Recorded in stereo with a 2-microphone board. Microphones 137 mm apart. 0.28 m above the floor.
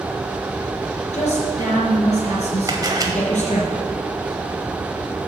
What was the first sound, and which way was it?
A woman speaking, 55° left (ahead or behind).